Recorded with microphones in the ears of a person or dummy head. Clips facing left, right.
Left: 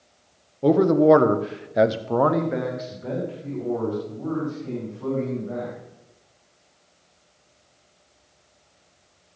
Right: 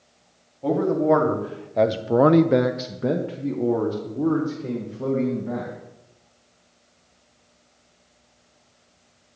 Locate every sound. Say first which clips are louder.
0.6 s a man speaking: left 5 dB; 50° left (ahead or behind), 1.3 m; by 5.8 s 80° right, 3 m